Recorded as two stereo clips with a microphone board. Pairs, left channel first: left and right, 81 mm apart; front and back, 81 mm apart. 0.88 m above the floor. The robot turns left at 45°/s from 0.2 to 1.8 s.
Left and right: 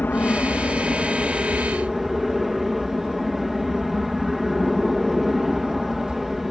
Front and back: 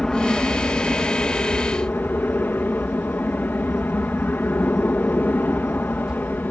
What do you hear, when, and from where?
0.0 s an aircraft: 70° left; by 6.5 s 5° right